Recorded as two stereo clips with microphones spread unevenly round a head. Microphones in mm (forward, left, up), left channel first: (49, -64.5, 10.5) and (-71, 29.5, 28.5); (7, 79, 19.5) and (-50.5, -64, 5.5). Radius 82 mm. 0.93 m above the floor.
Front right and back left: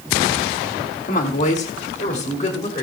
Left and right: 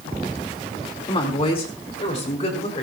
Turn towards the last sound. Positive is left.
turn(degrees=15)